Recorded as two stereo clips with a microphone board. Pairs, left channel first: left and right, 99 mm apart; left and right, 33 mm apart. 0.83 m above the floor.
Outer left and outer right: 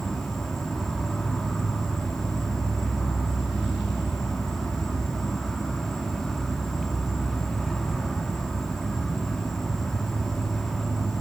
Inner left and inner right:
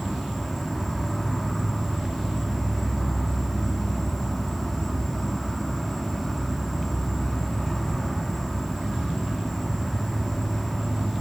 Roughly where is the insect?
Centre.